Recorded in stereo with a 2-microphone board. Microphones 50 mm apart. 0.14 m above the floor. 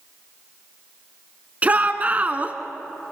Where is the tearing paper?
No tearing paper in this recording.